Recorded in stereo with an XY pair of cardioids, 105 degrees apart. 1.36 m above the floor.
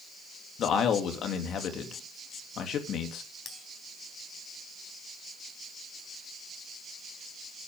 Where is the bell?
50° left, 3.5 m.